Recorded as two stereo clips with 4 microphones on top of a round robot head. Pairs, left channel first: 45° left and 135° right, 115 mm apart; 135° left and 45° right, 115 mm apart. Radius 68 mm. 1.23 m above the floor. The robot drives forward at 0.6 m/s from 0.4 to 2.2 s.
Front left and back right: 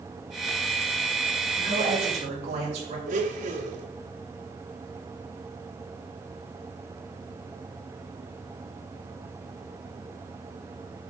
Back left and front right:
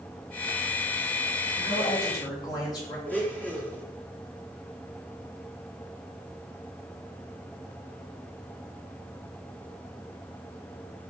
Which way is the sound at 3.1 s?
150° right.